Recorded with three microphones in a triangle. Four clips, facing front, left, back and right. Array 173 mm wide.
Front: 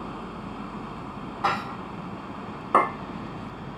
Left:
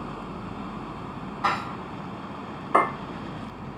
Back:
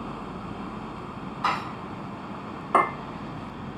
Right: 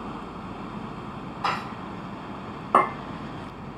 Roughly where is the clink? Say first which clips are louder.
Right 1 dB, front 1 dB; ahead right.